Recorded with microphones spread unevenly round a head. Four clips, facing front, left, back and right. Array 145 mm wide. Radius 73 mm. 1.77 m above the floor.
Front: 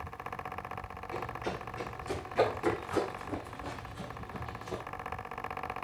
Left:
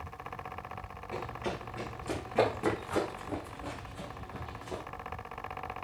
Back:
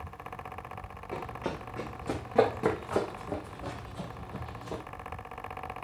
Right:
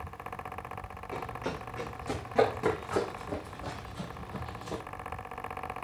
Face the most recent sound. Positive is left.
turn(degrees=-145)